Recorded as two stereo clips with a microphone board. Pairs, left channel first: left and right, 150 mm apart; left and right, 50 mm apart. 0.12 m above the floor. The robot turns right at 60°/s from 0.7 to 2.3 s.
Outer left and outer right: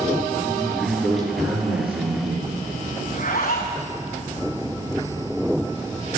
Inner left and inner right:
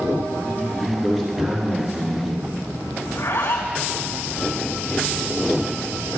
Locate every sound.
0.3 s a man speaking: 150° left, 4.5 m; by 2.5 s 115° right, 4.5 m
3.0 s a zipper: 70° left (ahead or behind), 3.5 m